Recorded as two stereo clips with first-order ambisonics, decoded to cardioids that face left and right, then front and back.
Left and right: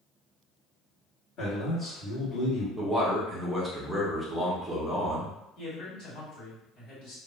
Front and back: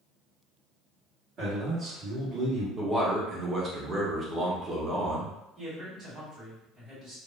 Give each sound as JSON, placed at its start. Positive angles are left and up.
{"t": 1.4, "sound": "a man speaking", "azimuth_deg": 140, "distance_m": 1.6}
{"t": 2.8, "sound": "a man speaking", "azimuth_deg": -170, "distance_m": 0.6}
{"t": 5.6, "sound": "a man speaking", "azimuth_deg": 115, "distance_m": 1.7}